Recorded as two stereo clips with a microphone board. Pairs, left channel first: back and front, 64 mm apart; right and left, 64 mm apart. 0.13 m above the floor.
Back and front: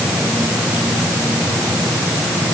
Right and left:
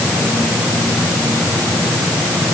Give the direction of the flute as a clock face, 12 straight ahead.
I don't hear a flute.